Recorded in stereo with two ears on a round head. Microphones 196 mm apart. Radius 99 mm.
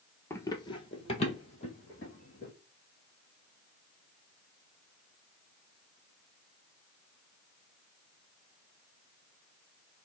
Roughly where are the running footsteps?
Centre.